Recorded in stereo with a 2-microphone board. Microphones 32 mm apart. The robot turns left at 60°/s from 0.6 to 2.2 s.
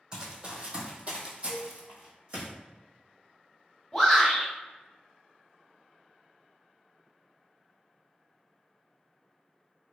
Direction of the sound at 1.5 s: 50° right (ahead or behind).